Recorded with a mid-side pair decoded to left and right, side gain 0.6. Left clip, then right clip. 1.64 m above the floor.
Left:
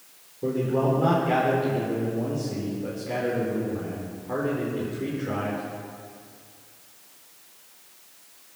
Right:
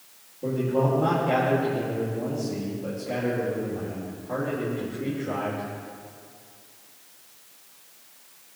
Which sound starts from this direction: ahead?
A man speaking, at 0.4 s.